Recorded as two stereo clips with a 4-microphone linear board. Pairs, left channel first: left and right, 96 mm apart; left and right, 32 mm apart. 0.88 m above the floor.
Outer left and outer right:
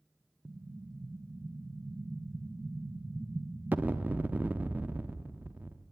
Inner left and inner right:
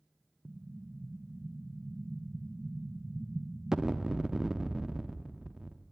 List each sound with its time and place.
0.5 s an explosion: 20° right (ahead or behind), 0.6 m